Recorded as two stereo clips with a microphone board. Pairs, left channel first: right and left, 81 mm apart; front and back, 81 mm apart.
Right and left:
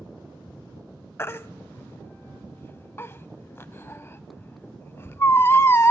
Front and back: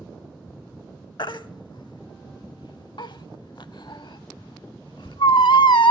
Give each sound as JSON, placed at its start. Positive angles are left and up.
{"t": 1.2, "sound": "a baby crying", "azimuth_deg": -30, "distance_m": 0.5}